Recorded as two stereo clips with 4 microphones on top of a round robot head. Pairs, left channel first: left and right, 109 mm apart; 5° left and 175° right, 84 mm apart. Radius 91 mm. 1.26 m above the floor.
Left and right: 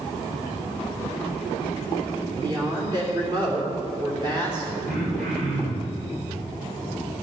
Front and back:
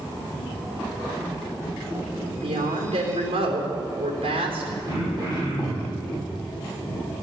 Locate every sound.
2.4 s a woman speaking: 150° right, 3 m
4.9 s throat clearing: 105° right, 5.5 m